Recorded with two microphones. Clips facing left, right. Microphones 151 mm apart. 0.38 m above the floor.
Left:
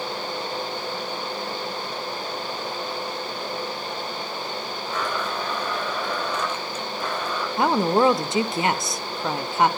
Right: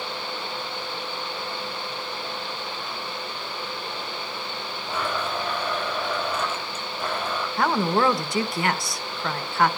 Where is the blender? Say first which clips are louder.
Right 1 dB; 10° right (ahead or behind), 5.5 m.